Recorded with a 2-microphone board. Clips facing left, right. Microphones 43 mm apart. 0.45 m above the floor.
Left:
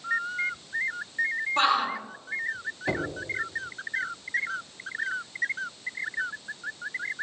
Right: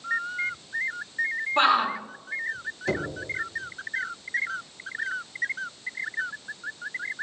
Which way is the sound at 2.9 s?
20° left (ahead or behind).